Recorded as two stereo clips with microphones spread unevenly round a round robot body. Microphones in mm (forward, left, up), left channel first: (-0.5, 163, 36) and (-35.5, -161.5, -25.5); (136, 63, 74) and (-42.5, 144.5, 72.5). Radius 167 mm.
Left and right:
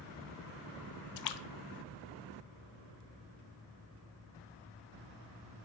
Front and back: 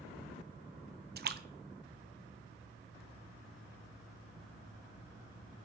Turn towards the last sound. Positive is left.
turn(degrees=115)